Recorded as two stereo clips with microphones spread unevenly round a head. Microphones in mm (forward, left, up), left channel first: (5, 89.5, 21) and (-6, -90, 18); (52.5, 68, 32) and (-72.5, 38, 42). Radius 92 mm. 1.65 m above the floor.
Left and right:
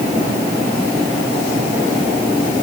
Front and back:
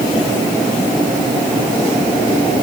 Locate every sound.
Only background noise.